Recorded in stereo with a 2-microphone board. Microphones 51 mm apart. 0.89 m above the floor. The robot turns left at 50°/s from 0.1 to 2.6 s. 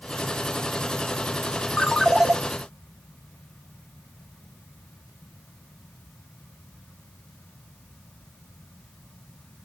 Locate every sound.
1.8 s a ringtone: 10° left (ahead or behind), 0.8 m; by 2.3 s 15° right (ahead or behind), 0.8 m